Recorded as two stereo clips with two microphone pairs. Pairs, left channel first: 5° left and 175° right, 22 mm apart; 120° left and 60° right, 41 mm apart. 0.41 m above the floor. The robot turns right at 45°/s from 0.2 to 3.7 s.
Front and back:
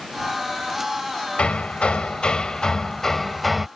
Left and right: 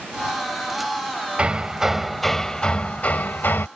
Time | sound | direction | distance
1.4 | hammering | 5° right | ?